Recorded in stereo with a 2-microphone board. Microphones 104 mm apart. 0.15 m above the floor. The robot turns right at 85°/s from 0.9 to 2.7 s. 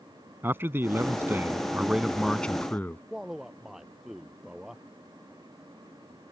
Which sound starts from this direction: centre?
A man speaking, at 3.1 s.